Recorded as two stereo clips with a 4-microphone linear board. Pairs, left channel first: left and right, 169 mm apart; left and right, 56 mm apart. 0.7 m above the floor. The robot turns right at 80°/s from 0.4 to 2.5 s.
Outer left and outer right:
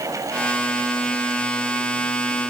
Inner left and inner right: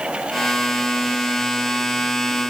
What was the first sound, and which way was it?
Only background noise.